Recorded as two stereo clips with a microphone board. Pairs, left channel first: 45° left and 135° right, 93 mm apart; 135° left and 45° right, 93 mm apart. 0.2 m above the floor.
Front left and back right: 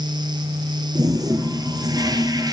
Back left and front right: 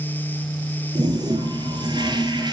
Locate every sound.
0.9 s a toilet flushing: 85° right, 2 m